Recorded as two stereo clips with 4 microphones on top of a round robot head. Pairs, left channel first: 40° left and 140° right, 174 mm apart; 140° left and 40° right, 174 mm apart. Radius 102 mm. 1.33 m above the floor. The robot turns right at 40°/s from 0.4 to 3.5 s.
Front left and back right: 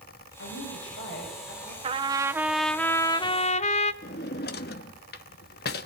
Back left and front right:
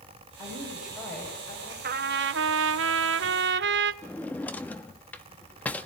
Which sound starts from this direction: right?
A trumpet, at 1.8 s.